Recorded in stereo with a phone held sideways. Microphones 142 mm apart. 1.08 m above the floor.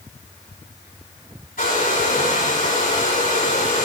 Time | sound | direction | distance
1.6 | a hair dryer | 85° left | 6 m